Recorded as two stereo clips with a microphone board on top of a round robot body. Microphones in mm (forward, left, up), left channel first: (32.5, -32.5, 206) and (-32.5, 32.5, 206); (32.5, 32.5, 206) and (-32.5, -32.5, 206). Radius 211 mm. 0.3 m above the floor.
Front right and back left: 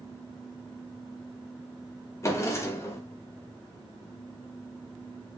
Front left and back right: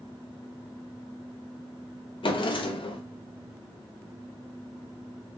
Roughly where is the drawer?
Ahead.